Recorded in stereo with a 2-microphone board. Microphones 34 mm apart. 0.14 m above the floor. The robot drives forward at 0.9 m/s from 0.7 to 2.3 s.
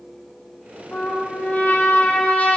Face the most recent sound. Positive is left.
turn(degrees=55)  # may be behind; listen again after turning